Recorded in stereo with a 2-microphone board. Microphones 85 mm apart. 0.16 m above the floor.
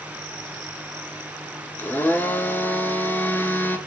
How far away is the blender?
About 1.5 m.